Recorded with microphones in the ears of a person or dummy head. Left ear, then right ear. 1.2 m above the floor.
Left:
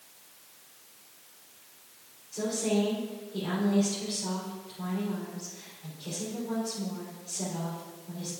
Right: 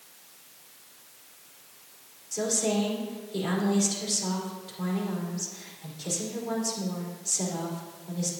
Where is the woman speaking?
75° right (ahead or behind), 4 m.